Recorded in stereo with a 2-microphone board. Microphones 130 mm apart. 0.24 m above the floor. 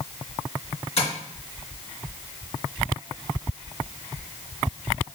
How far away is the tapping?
About 2.5 m.